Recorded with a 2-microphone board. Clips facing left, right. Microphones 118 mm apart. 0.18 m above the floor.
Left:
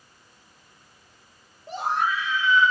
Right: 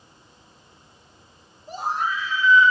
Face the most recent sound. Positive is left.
turn(degrees=55)  # may be behind; listen again after turning